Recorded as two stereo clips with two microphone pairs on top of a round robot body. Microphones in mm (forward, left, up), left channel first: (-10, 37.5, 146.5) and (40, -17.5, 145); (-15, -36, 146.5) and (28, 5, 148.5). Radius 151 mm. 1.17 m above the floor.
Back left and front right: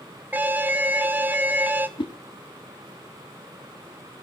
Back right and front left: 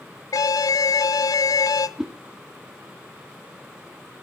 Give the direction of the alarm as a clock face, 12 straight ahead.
4 o'clock.